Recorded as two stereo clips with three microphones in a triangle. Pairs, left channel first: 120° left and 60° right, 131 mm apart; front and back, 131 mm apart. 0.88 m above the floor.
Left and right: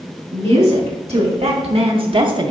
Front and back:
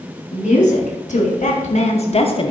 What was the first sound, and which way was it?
A woman speaking, 20° right.